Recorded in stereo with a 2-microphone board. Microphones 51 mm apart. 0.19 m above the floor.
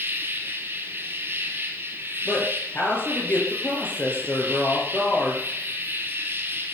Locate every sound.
0.0 s an insect: 45° right (ahead or behind), 2.5 m
2.2 s a woman speaking: 40° left (ahead or behind), 4.5 m